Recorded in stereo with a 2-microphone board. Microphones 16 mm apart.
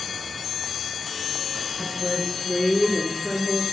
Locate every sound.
1.8 s a woman speaking: 35° left (ahead or behind), 3 m; by 3.6 s 5° left (ahead or behind), 4 m